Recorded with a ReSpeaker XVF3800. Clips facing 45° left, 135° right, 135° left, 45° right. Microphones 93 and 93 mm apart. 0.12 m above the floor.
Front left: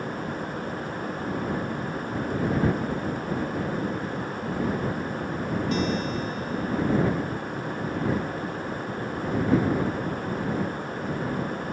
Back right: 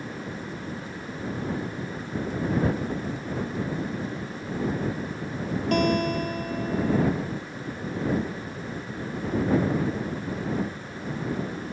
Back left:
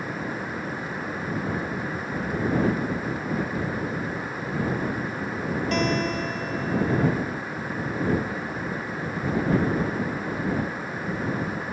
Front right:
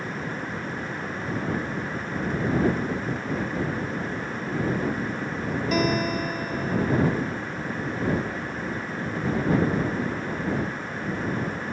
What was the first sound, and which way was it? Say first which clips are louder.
A guitar: back right 7 dB, front right 2 dB; 130° right.